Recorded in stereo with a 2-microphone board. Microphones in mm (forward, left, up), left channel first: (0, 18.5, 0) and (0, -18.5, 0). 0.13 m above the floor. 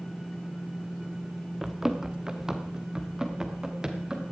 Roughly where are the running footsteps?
Centre.